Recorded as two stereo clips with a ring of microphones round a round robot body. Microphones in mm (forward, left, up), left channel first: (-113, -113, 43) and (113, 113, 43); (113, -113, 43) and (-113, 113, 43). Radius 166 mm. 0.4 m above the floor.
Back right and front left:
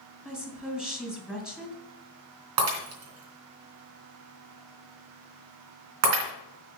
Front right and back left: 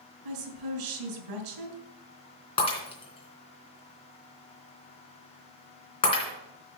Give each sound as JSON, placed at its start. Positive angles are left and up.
{"t": 0.2, "sound": "a woman speaking", "azimuth_deg": 135, "distance_m": 2.5}
{"t": 2.6, "sound": "breaking glass", "azimuth_deg": 30, "distance_m": 3.0}